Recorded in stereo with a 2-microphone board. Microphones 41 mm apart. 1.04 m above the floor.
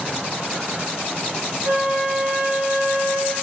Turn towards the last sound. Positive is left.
turn(degrees=-65)  # may be behind; listen again after turning